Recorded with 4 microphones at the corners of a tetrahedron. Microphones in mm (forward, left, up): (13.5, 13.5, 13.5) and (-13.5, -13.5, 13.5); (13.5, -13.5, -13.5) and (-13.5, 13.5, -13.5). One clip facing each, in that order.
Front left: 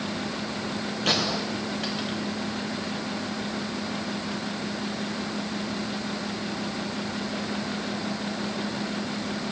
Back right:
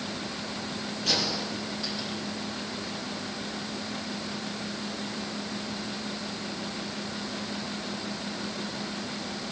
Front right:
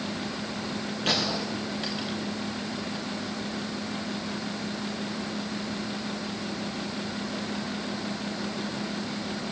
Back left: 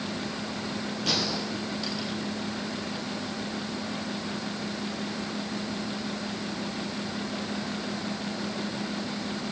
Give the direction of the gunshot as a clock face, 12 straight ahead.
12 o'clock.